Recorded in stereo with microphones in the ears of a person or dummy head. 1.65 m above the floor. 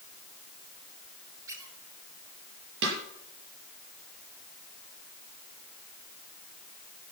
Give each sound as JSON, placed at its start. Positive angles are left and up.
{"t": 1.5, "sound": "a squeak", "side_deg": -20, "distance_m": 3.5}
{"t": 2.8, "sound": "a snare drum", "side_deg": -70, "distance_m": 6.0}